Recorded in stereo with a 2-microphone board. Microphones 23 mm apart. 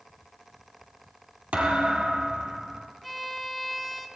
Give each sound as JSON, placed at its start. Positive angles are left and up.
{"t": 1.5, "sound": "a thud", "side_deg": -70, "distance_m": 4.5}
{"t": 3.0, "sound": "a violin", "side_deg": -5, "distance_m": 1.9}